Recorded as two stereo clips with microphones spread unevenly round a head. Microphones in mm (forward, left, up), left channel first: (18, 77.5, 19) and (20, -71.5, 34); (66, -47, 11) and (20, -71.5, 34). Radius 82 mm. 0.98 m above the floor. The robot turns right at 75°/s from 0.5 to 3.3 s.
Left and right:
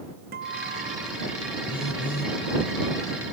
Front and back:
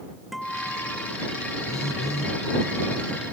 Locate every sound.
0.3 s a guitar: 65° right; by 1.2 s 10° right
1.7 s a phone buzzing: 30° left; by 2.3 s 80° left